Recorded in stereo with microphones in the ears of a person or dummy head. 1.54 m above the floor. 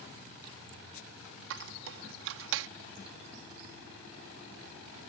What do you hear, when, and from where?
1.5 s a squeak: 70° right (ahead or behind)